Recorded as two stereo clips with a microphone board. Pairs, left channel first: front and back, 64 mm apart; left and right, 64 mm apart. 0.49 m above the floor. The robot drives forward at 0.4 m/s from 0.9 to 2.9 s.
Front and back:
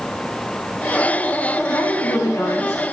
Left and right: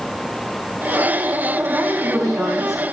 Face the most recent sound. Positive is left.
turn(degrees=0)